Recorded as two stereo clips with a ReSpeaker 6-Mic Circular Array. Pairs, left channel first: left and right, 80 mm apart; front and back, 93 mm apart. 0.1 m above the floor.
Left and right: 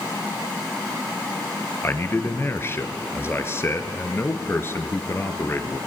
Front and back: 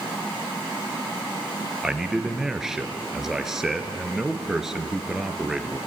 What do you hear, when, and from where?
1.8 s a man speaking: 100° left, 1.7 m